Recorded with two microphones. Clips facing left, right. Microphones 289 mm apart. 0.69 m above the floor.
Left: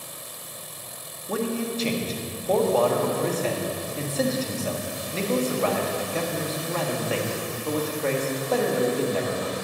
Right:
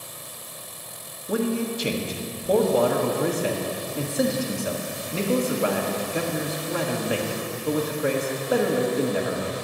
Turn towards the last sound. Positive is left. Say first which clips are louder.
# right 2 dB
turn(degrees=-15)  # may be behind; listen again after turning